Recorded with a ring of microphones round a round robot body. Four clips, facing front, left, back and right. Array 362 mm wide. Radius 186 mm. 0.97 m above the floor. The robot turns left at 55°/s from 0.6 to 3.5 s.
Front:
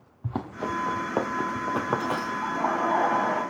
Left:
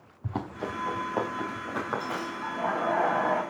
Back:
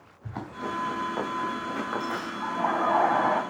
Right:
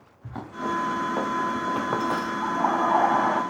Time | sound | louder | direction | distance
0.2 | running footsteps | right 3 dB, front 3 dB | 25° left | 7 m
2.4 | laughter | right 5 dB, back 1 dB | 75° right | 9 m